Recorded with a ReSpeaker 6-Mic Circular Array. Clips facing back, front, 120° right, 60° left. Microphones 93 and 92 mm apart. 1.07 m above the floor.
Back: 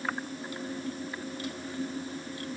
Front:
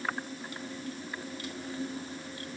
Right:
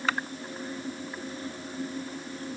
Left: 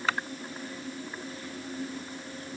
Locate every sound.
Only background noise.